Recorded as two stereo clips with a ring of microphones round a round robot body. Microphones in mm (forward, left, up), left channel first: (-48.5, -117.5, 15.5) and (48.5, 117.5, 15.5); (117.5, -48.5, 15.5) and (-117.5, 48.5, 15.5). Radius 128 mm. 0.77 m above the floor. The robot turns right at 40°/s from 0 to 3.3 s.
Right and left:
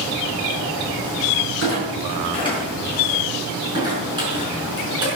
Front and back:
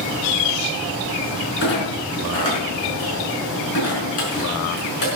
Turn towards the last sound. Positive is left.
turn(degrees=-5)